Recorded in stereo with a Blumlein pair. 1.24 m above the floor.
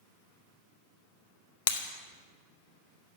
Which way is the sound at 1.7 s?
55° left.